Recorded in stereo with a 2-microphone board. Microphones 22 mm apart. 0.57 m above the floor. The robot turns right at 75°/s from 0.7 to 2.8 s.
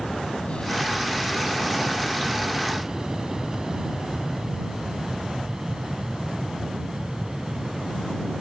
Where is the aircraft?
45° left (ahead or behind); by 8.4 s 30° right (ahead or behind).